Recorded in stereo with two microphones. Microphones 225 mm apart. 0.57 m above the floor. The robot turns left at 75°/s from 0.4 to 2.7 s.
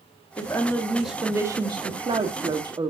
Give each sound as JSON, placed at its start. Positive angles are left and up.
{"t": 0.4, "sound": "a woman speaking", "side_deg": 15, "distance_m": 0.7}